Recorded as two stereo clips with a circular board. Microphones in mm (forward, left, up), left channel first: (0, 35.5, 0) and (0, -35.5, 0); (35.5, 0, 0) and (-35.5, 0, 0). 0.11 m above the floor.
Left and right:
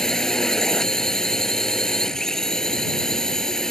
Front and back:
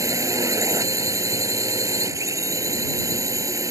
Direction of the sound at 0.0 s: 170° left.